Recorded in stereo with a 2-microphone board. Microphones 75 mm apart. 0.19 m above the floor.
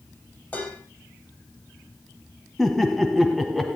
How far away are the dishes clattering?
About 4 m.